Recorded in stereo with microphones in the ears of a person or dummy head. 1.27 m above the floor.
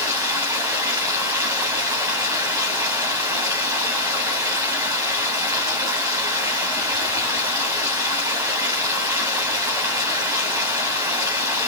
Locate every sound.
0.0 s running water: 10° right (ahead or behind), 2.5 m